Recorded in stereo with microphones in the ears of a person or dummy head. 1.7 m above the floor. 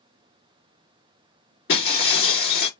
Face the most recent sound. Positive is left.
turn(degrees=40)  # may be behind; listen again after turning